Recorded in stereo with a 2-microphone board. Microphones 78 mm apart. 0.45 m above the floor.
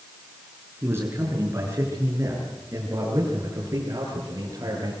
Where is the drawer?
No drawer in this recording.